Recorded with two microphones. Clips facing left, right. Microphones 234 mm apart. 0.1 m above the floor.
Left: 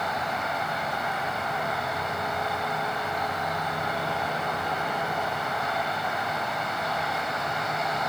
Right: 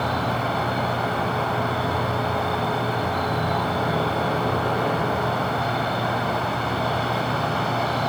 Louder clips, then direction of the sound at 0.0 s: Right 7 dB; 70° right (ahead or behind).